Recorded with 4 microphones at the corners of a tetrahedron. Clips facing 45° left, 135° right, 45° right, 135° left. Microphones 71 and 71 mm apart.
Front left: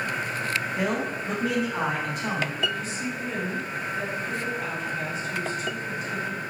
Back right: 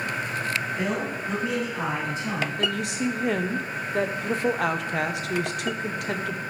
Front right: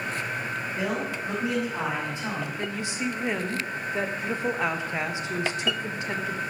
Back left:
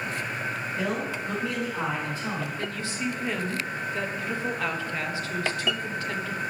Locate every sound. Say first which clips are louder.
0.8 s a man speaking: front left 1 dB, even; 25° left, 3.5 m
2.6 s a woman speaking: back right 3 dB, front right 1 dB; 115° right, 0.8 m